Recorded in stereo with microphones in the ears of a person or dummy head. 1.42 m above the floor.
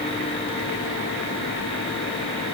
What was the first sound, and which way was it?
Only background noise.